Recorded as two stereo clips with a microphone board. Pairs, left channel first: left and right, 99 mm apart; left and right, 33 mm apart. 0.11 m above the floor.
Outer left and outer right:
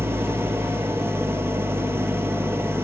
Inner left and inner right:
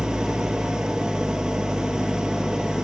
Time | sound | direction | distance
0.0 | an engine running | 25° right (ahead or behind) | 0.9 m